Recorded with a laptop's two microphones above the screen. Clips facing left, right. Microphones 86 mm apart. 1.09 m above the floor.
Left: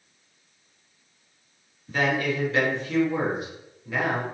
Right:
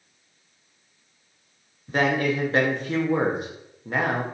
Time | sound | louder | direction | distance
1.9 | a man speaking | right 2 dB | 45° right (ahead or behind) | 0.7 m